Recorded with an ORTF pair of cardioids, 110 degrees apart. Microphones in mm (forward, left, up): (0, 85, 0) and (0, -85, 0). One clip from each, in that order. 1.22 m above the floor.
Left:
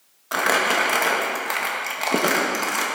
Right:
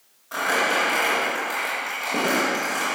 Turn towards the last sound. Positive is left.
turn(degrees=55)